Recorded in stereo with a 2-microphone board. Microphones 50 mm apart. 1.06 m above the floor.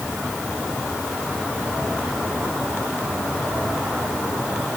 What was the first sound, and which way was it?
Only background noise.